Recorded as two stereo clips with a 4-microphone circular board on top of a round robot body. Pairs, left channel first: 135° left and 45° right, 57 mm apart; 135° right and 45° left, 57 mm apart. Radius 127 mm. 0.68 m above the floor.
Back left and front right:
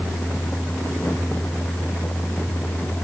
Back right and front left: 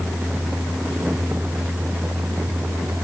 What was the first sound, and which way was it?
Only background noise.